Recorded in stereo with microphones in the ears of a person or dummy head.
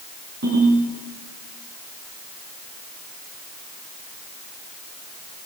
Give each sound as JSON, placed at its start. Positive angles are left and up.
{"t": 0.4, "sound": "a ringtone", "side_deg": -55, "distance_m": 9.5}